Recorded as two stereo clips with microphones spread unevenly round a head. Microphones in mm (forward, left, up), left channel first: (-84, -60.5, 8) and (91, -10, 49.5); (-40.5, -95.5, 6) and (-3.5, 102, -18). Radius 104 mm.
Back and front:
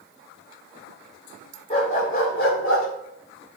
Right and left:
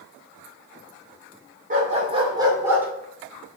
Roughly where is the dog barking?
Behind left.